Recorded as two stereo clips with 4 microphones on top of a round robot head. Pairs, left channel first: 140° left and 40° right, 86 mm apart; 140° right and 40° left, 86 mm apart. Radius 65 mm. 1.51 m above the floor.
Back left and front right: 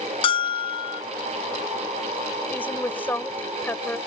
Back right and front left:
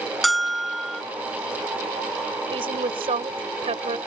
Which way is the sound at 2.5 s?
65° left.